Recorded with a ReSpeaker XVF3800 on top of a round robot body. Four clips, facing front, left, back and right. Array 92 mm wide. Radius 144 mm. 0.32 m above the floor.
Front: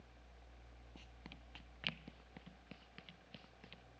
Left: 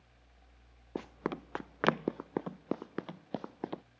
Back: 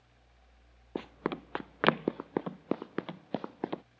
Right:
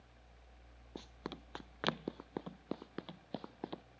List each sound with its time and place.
0.9 s running footsteps: 150° left; by 3.8 s 165° left